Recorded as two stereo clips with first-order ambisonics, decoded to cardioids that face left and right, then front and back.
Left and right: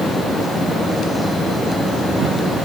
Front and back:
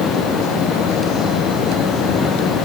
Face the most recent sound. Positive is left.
No sound to turn to.